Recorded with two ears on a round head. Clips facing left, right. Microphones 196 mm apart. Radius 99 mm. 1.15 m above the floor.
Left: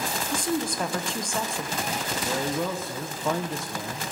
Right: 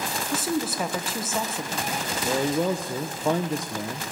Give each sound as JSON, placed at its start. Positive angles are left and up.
{"t": 0.3, "sound": "a woman speaking", "side_deg": -5, "distance_m": 0.8}
{"t": 2.2, "sound": "a man speaking", "side_deg": -15, "distance_m": 0.5}